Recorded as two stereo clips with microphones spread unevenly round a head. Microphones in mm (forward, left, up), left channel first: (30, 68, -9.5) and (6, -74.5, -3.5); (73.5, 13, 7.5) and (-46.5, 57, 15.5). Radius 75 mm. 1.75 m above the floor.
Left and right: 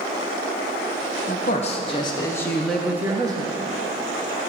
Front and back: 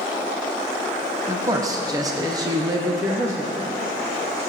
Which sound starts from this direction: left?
A man speaking, at 1.3 s.